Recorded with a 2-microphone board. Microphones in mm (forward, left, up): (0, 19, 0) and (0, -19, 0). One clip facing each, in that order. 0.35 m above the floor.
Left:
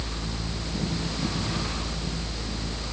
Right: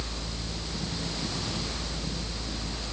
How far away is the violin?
I don't hear a violin.